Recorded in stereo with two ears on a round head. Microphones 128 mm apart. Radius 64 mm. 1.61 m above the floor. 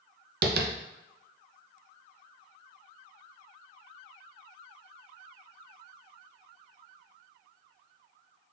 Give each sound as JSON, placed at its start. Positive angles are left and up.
{"t": 0.4, "sound": "tapping", "side_deg": -75, "distance_m": 0.5}